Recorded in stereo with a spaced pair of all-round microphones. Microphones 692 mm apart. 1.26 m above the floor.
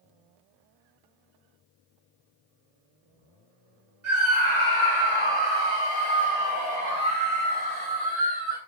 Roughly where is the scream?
Right.